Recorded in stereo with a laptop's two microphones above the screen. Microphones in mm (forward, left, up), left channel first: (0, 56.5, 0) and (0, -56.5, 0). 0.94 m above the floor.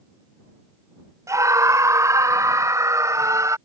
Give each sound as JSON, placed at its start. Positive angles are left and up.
{"t": 1.3, "sound": "a scream", "side_deg": -30}